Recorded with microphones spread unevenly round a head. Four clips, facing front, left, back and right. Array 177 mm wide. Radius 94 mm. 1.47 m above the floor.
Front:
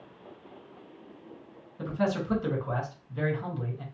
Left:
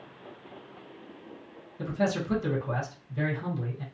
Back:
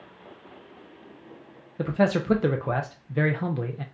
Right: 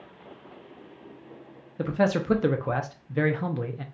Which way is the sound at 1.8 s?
140° right.